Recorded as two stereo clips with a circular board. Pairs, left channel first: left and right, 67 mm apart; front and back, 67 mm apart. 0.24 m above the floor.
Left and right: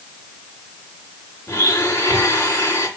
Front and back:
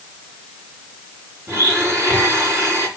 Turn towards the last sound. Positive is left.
turn(degrees=140)